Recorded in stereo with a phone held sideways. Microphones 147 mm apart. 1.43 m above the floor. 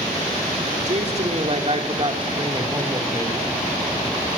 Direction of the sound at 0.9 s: 50° right (ahead or behind).